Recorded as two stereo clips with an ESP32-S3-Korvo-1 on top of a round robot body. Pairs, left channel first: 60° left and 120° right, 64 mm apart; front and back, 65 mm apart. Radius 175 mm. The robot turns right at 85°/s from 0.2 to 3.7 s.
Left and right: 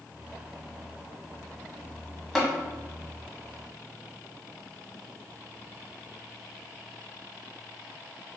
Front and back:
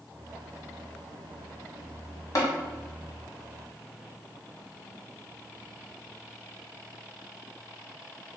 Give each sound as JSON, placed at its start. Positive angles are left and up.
{"t": 2.4, "sound": "tapping", "azimuth_deg": -30, "distance_m": 1.4}